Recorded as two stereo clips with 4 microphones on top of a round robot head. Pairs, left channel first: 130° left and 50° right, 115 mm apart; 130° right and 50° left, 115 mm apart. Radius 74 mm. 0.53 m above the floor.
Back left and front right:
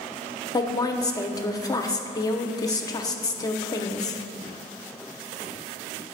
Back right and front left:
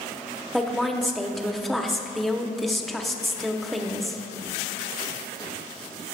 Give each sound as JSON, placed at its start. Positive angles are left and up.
{"t": 0.5, "sound": "a woman speaking", "azimuth_deg": 140, "distance_m": 0.8}